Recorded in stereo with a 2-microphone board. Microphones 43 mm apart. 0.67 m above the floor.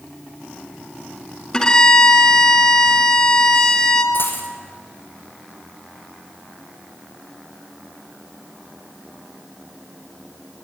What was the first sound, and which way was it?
A violin, 20° left (ahead or behind).